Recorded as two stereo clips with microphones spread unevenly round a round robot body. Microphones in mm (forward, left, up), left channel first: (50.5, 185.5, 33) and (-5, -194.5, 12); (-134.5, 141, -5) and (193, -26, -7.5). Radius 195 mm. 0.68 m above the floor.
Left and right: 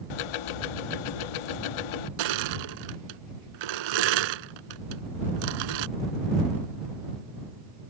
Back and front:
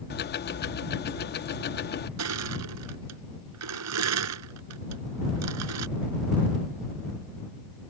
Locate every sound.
0.1 s ticking: 90° left
2.2 s crushing: 80° right